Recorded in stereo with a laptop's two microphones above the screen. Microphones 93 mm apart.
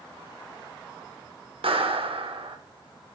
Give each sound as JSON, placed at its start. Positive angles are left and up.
{"t": 1.6, "sound": "a clap", "side_deg": -80, "distance_m": 1.7}